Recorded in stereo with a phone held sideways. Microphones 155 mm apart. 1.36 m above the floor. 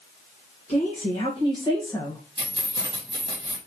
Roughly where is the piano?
I don't hear a piano.